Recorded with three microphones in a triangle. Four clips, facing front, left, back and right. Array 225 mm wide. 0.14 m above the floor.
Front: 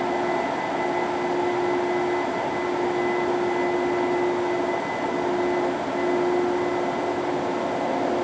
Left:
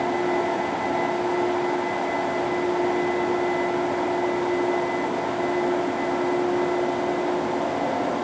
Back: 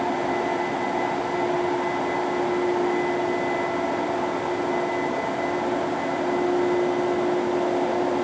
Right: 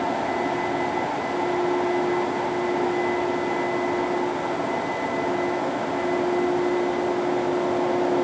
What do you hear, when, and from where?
Only background noise.